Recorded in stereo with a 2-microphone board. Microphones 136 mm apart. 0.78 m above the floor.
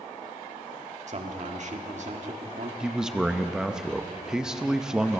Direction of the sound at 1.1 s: 55° right (ahead or behind).